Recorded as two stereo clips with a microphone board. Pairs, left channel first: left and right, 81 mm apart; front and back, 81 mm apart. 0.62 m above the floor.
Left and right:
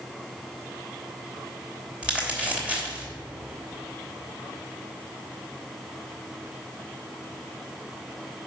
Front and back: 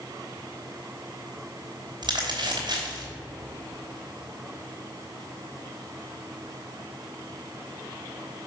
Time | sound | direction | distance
2.0 | crumpling | 165° right | 2.5 m